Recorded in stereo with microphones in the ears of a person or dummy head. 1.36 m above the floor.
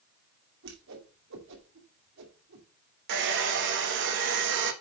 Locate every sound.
0.6 s a whoosh: 65° right (ahead or behind), 2.5 m
3.1 s a hair dryer: 65° right (ahead or behind), 1.7 m